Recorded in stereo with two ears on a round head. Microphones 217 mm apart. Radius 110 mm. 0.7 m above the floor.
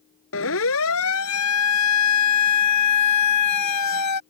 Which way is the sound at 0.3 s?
55° left (ahead or behind).